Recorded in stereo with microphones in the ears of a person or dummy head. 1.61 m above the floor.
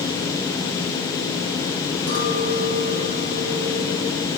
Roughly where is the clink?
Right.